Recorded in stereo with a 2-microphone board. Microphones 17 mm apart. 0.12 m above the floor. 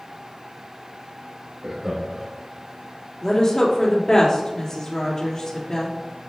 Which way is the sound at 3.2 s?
35° left (ahead or behind).